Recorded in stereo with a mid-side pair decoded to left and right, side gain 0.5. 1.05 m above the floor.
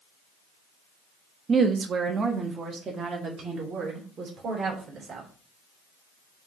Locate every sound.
1.5 s a woman speaking: 40° right, 1.1 m; by 5.3 s 45° right, 3 m